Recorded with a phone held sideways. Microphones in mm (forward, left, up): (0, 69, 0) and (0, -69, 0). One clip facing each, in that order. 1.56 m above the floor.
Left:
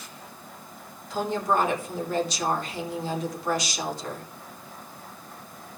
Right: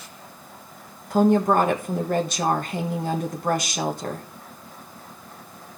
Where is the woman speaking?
55° right (ahead or behind), 1.4 m.